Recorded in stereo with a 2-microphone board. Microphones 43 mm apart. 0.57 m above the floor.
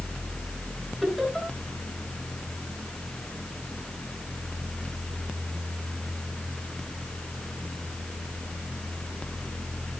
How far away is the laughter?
About 9.5 m.